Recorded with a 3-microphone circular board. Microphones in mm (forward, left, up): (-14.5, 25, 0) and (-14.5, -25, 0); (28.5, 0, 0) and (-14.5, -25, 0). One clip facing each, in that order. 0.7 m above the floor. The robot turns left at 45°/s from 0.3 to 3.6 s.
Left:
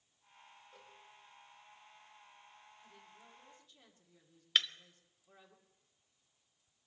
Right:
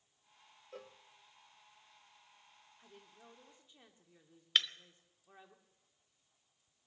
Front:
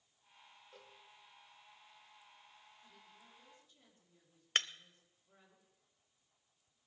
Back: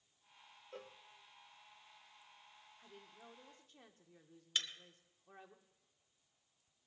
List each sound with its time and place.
0.7 s a cowbell: 105° right, 0.7 m; by 1.0 s 120° right, 0.7 m
2.8 s a woman speaking: 120° right, 2.0 m; by 5.5 s 160° right, 2.0 m
4.5 s breaking glass: straight ahead, 0.5 m